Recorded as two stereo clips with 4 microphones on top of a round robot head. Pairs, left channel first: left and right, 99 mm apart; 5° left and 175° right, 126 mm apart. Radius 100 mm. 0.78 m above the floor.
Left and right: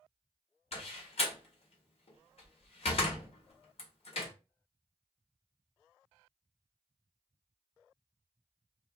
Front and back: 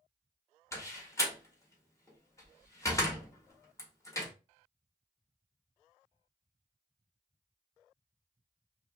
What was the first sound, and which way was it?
A door slam, 70° left.